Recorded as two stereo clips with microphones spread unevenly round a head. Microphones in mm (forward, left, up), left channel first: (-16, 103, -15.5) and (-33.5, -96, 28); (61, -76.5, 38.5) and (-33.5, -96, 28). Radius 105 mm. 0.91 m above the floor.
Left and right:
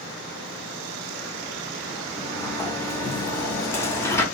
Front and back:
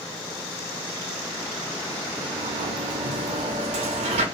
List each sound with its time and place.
2.1 s a sliding door: 165° left, 0.7 m